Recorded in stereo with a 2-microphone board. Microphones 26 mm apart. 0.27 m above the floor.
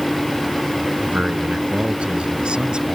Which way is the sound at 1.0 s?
60° right (ahead or behind).